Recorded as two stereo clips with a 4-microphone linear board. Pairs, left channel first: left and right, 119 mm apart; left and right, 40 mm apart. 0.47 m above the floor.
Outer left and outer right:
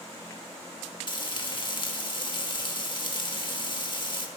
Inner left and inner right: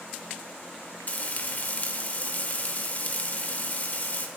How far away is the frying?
About 0.8 m.